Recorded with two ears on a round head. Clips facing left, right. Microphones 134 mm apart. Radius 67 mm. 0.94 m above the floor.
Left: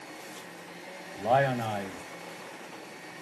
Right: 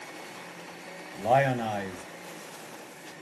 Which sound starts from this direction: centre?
A man speaking, at 1.1 s.